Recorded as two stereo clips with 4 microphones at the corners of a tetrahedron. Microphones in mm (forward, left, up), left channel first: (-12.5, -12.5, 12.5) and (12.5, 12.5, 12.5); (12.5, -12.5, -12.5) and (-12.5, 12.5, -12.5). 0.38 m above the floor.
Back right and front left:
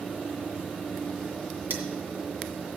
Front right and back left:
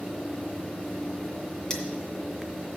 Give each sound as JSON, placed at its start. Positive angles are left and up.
{"t": 1.7, "sound": "cutlery clinking", "azimuth_deg": 35, "distance_m": 2.0}